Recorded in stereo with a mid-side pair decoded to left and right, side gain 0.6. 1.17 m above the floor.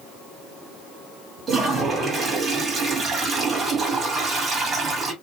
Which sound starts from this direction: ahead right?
A toilet flushing, at 1.5 s.